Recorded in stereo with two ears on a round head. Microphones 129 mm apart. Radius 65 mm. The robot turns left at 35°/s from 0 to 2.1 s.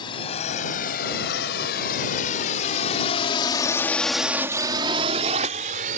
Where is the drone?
30° left (ahead or behind); by 6.0 s 60° right (ahead or behind).